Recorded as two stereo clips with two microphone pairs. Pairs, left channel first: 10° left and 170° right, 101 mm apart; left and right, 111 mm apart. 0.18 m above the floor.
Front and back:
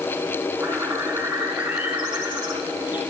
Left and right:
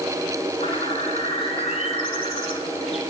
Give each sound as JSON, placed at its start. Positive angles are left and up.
{"t": 0.6, "sound": "a bird", "azimuth_deg": 115, "distance_m": 4.5}